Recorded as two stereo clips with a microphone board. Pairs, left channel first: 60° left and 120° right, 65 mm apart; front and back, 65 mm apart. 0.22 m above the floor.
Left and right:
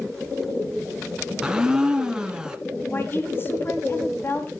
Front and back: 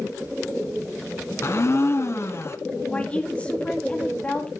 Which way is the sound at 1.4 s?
40° right.